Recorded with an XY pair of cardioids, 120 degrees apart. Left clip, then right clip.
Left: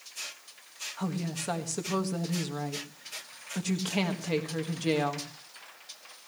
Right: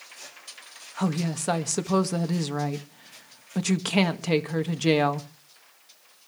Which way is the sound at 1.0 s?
40° right.